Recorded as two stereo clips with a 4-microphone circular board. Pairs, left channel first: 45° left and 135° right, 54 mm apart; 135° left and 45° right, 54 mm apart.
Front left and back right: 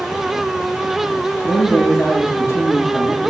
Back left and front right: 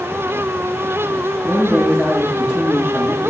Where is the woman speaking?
65° left, 3.5 m.